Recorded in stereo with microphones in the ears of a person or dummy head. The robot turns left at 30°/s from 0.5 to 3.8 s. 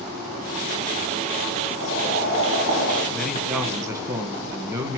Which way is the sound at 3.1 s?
5° left (ahead or behind).